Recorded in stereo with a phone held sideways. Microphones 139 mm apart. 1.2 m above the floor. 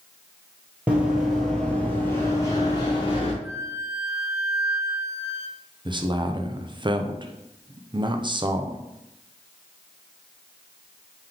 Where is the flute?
20° right (ahead or behind), 0.6 m.